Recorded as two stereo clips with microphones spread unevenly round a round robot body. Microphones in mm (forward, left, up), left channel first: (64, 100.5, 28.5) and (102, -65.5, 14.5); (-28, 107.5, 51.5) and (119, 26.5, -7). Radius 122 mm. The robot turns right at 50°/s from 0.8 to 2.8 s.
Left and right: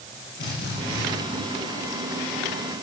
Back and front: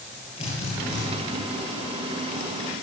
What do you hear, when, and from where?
0.4 s a drill: 100° left, 7.5 m; by 1.1 s 110° left, 7.5 m